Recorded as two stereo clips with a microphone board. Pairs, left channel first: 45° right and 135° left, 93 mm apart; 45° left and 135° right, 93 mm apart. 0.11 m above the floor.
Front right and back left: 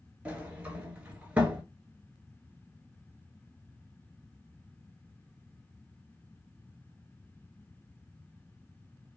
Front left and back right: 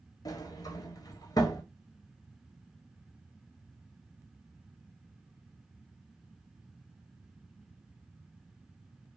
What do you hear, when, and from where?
0.2 s a sliding door: 65° left, 0.7 m